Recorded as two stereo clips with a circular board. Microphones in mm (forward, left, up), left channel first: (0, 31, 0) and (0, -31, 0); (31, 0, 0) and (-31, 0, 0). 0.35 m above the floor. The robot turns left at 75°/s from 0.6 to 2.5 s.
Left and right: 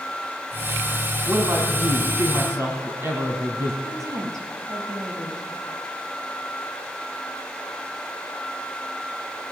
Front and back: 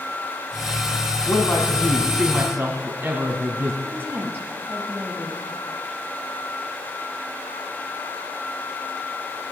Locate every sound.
1.3 s a man speaking: 40° right, 3 m; by 3.7 s 130° right, 3 m
3.8 s a woman speaking: 125° right, 9 m